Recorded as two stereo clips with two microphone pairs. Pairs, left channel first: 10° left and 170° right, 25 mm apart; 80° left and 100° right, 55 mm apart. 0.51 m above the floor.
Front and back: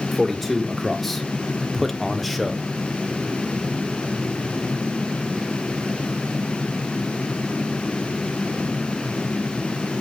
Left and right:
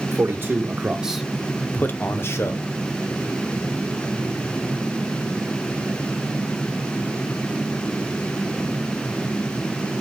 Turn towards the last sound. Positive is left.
turn(degrees=100)